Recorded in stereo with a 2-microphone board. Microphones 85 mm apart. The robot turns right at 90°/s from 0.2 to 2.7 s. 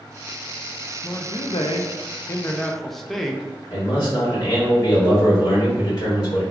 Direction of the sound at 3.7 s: 55° left (ahead or behind).